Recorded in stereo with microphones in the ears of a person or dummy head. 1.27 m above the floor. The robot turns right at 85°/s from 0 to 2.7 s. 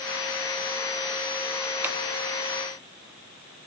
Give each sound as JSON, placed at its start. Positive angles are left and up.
{"t": 1.8, "sound": "scissors", "side_deg": -10, "distance_m": 1.0}